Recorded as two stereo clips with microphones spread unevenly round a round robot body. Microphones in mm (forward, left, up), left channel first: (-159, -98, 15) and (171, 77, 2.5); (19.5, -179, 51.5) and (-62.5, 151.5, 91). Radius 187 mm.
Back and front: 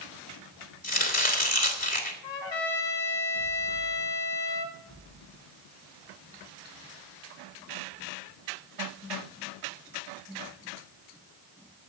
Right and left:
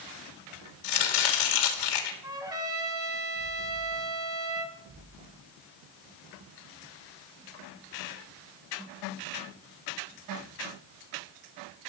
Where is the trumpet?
Straight behind, 2 m.